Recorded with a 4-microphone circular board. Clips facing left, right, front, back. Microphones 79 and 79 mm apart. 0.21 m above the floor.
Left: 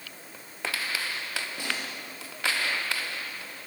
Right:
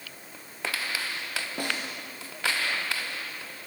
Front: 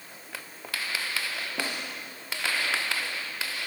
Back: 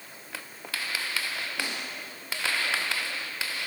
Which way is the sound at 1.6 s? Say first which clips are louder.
Right 4 dB, front 3 dB; 55° right.